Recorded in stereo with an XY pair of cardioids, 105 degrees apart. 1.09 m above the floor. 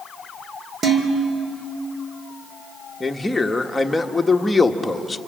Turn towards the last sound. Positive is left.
turn(degrees=10)